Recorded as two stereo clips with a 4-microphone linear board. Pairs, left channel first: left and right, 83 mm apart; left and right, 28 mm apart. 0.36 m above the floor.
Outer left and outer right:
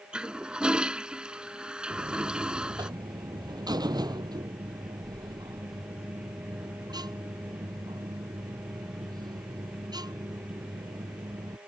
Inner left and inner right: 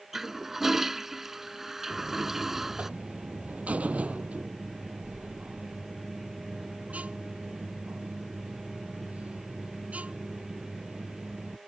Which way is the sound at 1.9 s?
60° right (ahead or behind).